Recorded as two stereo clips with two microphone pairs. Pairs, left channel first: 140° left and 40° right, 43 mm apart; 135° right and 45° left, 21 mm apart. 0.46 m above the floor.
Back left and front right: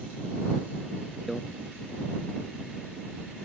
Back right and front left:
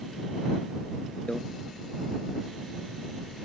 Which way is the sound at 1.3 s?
130° right.